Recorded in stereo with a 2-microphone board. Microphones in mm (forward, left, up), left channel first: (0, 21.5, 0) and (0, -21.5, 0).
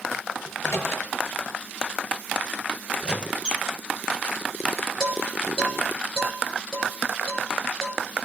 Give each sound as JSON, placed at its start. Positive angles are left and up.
{"t": 0.5, "sound": "a microwave", "side_deg": 70, "distance_m": 5.5}
{"t": 3.0, "sound": "a squeak", "side_deg": -20, "distance_m": 0.6}
{"t": 5.0, "sound": "dishes clattering", "side_deg": 15, "distance_m": 10.0}